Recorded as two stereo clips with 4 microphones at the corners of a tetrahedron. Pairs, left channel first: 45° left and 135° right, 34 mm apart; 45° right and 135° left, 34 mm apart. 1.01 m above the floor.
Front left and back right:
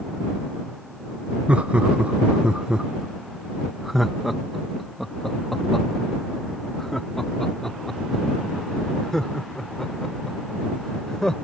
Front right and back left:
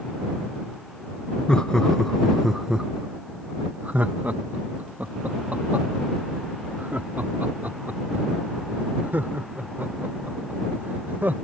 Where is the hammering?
I don't hear hammering.